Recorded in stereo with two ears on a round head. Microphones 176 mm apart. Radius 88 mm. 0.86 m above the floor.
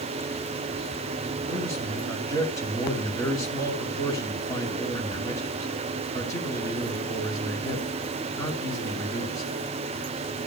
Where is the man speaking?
20° left (ahead or behind), 6 m.